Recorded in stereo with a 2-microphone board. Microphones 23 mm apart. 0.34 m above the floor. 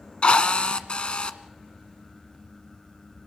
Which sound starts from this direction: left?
A drill, at 0.2 s.